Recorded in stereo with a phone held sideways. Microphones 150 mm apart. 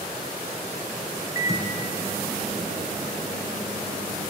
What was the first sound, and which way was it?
A microwave, 20° right (ahead or behind).